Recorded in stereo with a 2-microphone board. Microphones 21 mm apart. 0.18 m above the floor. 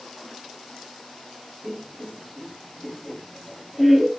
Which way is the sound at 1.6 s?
5° right (ahead or behind).